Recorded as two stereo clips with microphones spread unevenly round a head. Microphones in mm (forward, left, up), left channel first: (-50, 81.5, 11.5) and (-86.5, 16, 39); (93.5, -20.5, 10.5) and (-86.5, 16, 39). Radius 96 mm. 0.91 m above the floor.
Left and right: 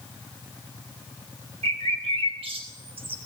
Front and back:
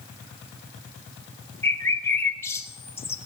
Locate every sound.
1.6 s a bird: 90° right, 2.5 m